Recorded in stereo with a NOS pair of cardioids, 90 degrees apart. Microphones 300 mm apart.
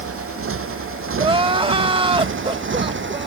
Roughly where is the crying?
Ahead.